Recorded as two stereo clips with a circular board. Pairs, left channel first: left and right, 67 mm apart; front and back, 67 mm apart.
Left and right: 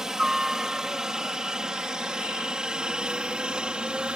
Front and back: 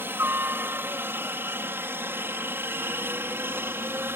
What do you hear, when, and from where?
0.0 s a helicopter: 165° right; by 4.2 s 155° right